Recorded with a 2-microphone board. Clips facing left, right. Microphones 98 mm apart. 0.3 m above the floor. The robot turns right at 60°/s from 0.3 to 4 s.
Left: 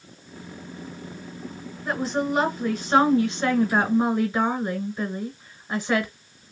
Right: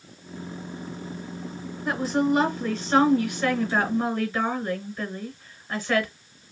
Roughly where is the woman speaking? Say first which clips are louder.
Right 2 dB; centre.